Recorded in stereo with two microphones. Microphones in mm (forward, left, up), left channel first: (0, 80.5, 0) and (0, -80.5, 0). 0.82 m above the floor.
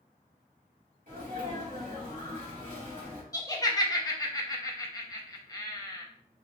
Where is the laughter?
25° left (ahead or behind), 1.0 m.